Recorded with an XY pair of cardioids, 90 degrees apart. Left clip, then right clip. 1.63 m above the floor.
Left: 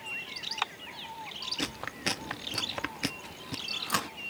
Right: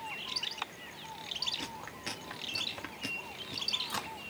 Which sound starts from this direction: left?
Chewing, at 1.6 s.